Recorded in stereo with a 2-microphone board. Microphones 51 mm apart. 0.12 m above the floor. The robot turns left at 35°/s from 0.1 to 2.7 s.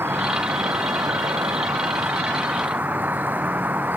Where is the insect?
50° right; by 4.0 s 140° right.